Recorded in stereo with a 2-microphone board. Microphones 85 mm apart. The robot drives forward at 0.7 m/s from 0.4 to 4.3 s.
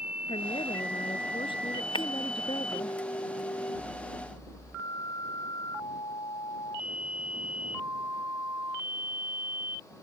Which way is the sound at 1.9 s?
70° left (ahead or behind).